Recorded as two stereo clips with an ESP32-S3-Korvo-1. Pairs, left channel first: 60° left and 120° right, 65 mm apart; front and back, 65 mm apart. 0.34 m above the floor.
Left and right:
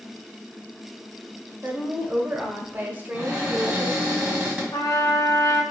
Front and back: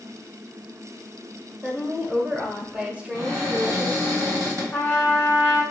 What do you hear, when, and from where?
1.6 s a woman speaking: 135° right, 0.9 m
3.1 s a cupboard door: 170° left, 1.8 m
4.7 s a trumpet: 65° left, 0.9 m